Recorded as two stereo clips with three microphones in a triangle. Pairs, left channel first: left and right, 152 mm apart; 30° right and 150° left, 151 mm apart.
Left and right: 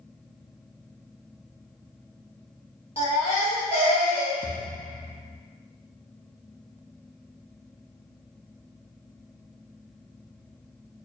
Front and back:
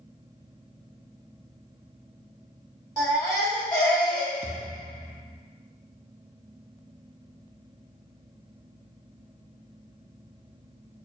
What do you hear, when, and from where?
3.0 s a baby crying: 40° left, 1.7 m
4.4 s a thud: 100° left, 0.8 m